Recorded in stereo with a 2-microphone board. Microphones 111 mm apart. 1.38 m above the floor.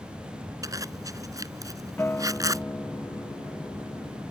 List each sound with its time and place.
0.6 s a zipper: 30° right (ahead or behind)
2.0 s a guitar: 15° left (ahead or behind)